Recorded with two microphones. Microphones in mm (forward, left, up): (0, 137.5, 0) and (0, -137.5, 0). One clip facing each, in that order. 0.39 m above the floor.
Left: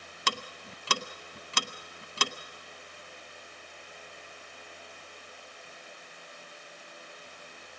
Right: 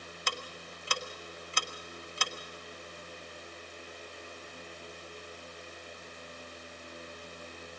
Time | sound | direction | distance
0.3 | ticking | 80° left | 0.7 m